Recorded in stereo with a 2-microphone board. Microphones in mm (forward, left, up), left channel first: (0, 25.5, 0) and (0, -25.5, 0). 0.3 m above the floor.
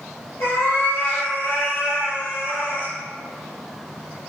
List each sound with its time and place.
0.4 s a cat meowing: 55° left (ahead or behind), 1.9 m; by 2.9 s 35° left (ahead or behind), 0.5 m